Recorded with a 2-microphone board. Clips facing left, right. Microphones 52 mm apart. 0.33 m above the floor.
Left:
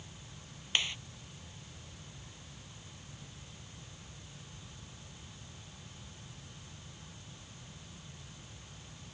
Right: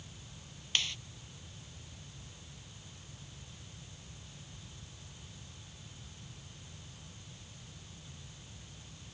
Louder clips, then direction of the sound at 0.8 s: Left 1 dB; 20° left (ahead or behind).